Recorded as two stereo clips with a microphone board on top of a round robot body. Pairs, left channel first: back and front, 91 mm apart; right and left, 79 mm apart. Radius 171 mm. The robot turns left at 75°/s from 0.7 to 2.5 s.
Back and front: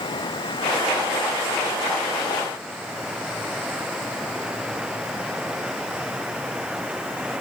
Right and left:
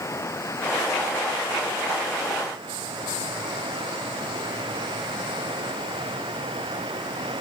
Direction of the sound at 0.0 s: 145° right.